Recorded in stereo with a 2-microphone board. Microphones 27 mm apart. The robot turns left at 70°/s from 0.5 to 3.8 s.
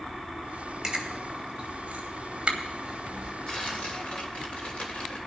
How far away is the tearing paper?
About 3 m.